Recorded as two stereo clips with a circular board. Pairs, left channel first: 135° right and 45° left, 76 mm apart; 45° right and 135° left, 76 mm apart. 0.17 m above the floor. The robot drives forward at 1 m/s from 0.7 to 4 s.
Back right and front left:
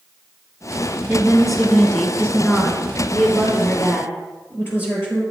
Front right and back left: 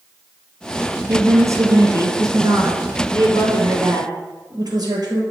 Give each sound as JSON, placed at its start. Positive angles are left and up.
{"t": 1.1, "sound": "a woman speaking", "azimuth_deg": 115, "distance_m": 1.4}